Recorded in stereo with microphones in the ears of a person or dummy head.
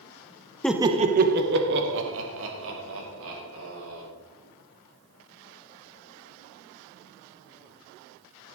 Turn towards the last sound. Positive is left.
turn(degrees=-75)  # may be behind; listen again after turning